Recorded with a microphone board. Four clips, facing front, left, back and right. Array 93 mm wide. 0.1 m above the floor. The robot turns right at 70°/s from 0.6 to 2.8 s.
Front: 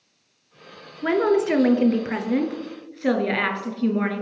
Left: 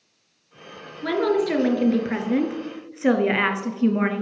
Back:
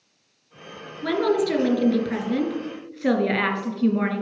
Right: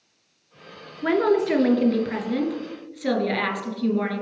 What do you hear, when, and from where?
1.0 s a woman speaking: 40° right, 1.4 m; by 4.2 s 85° left, 1.4 m